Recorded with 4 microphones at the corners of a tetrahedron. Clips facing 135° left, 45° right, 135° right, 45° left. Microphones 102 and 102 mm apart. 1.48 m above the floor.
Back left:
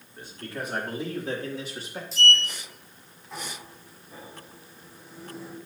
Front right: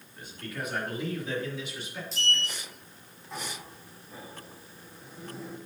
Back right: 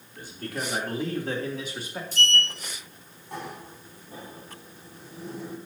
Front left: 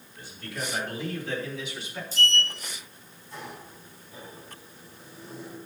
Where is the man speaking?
170° right, 4 m; by 2.0 s straight behind, 3 m.